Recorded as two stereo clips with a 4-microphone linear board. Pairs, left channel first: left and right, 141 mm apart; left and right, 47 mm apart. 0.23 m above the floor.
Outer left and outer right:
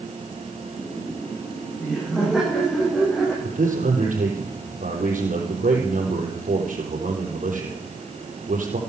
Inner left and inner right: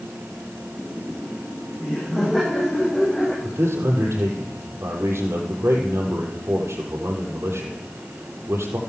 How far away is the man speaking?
About 6 m.